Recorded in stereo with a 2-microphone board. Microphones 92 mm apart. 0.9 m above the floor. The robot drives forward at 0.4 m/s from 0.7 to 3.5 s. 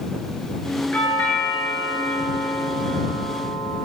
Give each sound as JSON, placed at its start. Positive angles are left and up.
{"t": 0.9, "sound": "a doorbell", "side_deg": 15, "distance_m": 9.0}